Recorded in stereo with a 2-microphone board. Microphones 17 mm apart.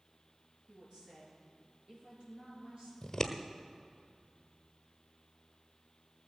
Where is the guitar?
No guitar in this recording.